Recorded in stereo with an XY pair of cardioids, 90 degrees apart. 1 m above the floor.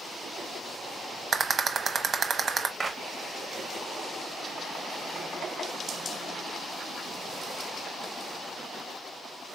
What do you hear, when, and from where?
1.3 s a rattle: 45° right, 0.9 m
2.8 s a clap: 30° right, 1.0 m